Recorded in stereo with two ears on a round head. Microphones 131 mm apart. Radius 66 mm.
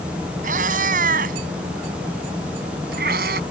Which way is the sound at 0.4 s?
60° right (ahead or behind).